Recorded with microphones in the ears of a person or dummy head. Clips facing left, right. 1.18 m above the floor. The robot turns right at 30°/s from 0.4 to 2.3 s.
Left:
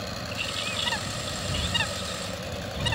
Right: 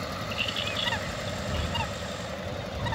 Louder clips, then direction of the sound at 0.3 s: Right 1 dB; 10° right (ahead or behind).